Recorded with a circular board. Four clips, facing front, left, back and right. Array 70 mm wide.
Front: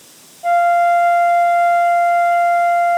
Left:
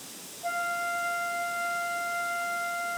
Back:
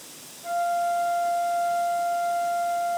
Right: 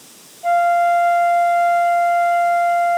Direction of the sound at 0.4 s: 35° right.